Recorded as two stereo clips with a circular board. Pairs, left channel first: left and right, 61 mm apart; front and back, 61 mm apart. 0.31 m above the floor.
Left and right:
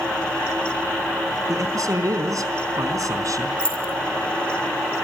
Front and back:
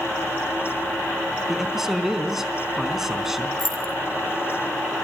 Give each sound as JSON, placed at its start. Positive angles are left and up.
{"t": 1.5, "sound": "a man speaking", "azimuth_deg": -95, "distance_m": 4.0}
{"t": 3.6, "sound": "keys jangling", "azimuth_deg": 165, "distance_m": 5.0}